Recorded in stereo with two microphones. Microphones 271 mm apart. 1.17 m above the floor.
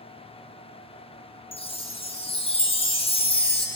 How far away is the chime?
About 0.5 m.